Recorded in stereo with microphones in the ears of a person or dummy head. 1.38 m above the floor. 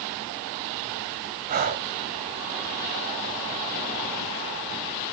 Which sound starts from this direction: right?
Breathing, at 1.5 s.